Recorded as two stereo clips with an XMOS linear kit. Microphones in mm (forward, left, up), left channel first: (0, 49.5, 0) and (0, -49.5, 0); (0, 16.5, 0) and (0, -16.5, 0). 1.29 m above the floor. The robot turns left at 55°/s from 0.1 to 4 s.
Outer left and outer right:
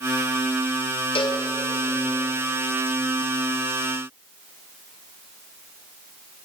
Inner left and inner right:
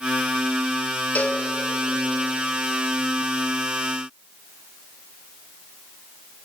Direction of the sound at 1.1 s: 60° left (ahead or behind).